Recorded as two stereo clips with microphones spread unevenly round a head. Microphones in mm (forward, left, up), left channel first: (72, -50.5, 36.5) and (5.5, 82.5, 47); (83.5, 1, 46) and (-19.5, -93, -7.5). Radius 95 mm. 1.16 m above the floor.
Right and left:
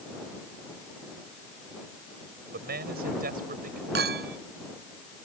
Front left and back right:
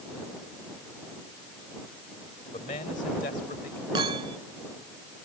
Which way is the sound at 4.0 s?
150° left.